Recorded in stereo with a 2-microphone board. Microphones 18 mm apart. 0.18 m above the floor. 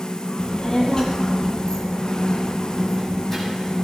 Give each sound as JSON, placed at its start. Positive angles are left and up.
{"t": 0.4, "sound": "a child speaking", "side_deg": 55, "distance_m": 3.5}